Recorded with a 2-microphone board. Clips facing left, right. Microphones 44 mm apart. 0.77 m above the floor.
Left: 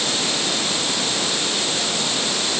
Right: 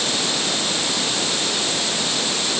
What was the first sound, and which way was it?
Only background noise.